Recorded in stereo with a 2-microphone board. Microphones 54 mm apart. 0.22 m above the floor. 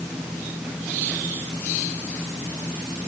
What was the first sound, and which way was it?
Only background noise.